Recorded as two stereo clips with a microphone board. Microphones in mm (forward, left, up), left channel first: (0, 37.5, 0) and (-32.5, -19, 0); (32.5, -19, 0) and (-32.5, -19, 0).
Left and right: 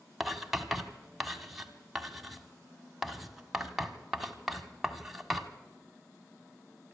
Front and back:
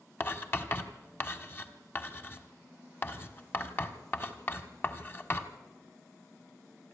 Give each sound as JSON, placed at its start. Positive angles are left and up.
{"t": 0.2, "sound": "writing", "azimuth_deg": -35, "distance_m": 1.4}